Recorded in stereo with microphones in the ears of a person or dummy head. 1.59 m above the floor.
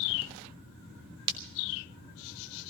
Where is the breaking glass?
25° right (ahead or behind), 1.1 m.